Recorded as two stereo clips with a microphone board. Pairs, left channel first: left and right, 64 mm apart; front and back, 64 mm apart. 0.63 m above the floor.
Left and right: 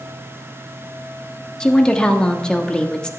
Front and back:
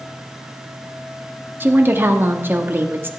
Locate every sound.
1.6 s a woman speaking: 155° left, 1.0 m